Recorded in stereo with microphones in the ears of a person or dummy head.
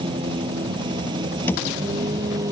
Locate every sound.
0.0 s a vehicle: 25° right (ahead or behind); by 2.5 s 20° right (ahead or behind)
1.5 s a thud: 10° left (ahead or behind)